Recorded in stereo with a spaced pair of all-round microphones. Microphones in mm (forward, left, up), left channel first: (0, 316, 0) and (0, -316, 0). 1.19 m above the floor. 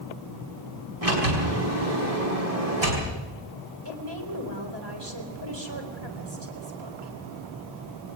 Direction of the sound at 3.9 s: 40° right (ahead or behind).